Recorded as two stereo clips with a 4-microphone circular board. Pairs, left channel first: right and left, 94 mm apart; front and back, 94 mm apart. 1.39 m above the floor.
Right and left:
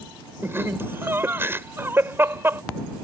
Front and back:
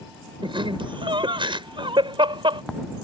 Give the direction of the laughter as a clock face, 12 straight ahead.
7 o'clock.